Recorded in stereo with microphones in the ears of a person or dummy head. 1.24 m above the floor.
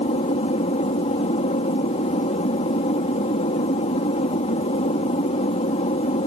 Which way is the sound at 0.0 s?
35° left (ahead or behind).